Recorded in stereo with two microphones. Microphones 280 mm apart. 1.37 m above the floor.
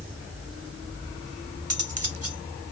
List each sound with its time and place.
1.7 s cutlery clinking: 60° right (ahead or behind)